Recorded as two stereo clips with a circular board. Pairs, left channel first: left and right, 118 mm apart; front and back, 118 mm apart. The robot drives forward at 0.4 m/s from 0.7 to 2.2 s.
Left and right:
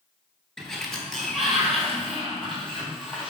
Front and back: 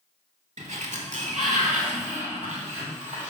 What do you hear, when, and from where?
0.6 s a sliding door: 175° left, 0.6 m; by 3.3 s straight behind, 1.2 m